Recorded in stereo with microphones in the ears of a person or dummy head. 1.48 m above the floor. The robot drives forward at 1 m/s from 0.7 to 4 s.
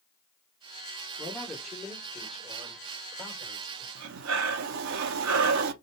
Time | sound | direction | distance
1.2 | a man speaking | 10° left (ahead or behind) | 2.5 m
4.0 | breathing | 70° right (ahead or behind) | 0.6 m